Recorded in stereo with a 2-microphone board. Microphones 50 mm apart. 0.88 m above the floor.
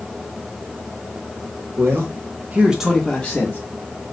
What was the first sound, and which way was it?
A man speaking, 60° right (ahead or behind).